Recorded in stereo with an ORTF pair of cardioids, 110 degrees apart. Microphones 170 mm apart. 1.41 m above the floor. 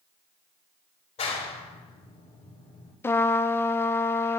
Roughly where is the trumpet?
Ahead.